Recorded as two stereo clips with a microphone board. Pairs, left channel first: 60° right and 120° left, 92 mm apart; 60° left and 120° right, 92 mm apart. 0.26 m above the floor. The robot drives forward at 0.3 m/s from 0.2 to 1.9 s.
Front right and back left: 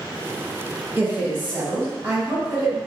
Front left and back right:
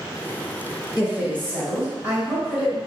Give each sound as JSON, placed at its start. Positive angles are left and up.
{"t": 1.0, "sound": "a woman speaking", "azimuth_deg": 175, "distance_m": 1.7}